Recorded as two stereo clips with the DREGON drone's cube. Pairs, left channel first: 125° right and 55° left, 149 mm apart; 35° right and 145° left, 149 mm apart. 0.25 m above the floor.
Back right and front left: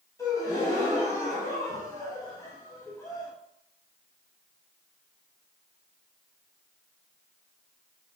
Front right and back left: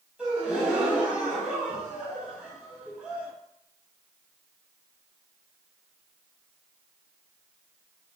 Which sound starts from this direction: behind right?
A gasp, at 0.2 s.